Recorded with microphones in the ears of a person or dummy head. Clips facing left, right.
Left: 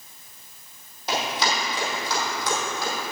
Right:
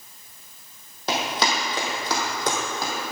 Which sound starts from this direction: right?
Running footsteps, at 1.1 s.